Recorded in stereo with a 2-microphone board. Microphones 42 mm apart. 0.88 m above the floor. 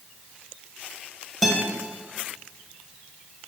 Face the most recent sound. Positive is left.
turn(degrees=0)  # may be behind; listen again after turning